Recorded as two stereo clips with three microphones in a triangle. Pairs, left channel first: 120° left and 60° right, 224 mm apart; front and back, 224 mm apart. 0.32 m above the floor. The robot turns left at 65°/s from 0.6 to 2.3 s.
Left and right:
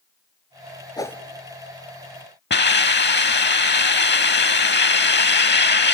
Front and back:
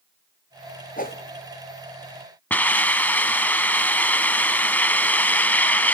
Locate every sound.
1.0 s a whoosh: 50° left, 1.5 m; by 1.2 s 35° left, 1.5 m
2.5 s a hiss: 80° left, 0.6 m